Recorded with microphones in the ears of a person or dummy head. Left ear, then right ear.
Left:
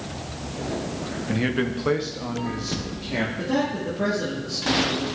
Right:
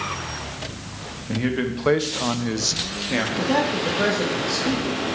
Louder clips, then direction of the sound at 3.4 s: Right 4 dB; 75° right (ahead or behind).